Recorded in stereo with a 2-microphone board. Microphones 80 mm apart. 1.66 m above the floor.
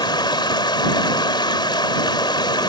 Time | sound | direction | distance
0.0 | running water | 70° left (ahead or behind) | ?